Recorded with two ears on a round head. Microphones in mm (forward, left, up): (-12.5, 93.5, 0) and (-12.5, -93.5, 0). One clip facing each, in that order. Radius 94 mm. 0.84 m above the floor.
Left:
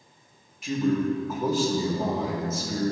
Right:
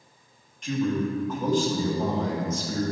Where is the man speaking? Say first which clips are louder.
Left 2 dB; 5° left (ahead or behind), 1.2 m.